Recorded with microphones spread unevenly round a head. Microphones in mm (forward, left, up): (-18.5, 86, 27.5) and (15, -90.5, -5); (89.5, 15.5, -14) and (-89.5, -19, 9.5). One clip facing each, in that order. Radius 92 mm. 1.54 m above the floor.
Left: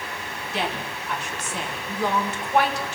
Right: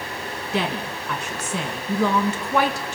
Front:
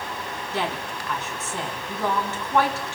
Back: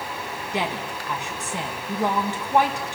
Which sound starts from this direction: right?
A woman speaking, at 0.5 s.